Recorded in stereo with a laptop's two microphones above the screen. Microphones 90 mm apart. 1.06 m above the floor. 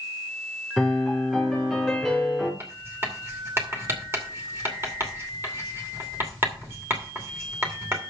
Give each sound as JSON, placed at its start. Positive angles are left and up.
{"t": 0.8, "sound": "a piano", "side_deg": 0, "distance_m": 3.5}
{"t": 2.6, "sound": "writing", "side_deg": -30, "distance_m": 2.5}